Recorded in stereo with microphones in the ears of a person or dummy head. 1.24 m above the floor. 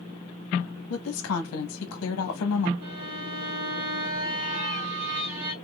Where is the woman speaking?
75° left (ahead or behind), 1.0 m.